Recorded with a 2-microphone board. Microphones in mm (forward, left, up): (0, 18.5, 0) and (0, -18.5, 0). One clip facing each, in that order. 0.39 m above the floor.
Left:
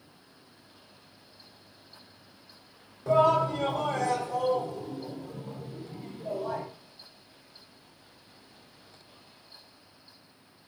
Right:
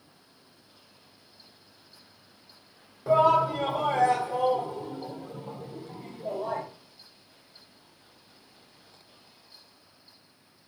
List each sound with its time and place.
3.1 s a shout: 10° right (ahead or behind), 1.4 m; by 6.6 s 35° right (ahead or behind), 1.6 m